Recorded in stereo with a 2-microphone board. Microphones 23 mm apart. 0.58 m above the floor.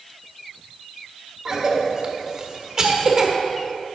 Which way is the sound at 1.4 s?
30° right (ahead or behind).